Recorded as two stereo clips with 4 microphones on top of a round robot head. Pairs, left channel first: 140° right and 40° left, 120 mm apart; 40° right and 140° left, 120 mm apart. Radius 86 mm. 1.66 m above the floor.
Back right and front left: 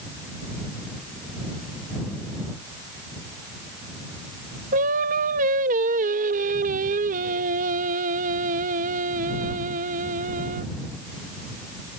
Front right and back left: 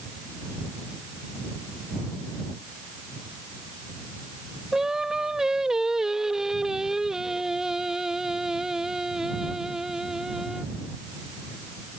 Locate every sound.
4.7 s singing: 55° left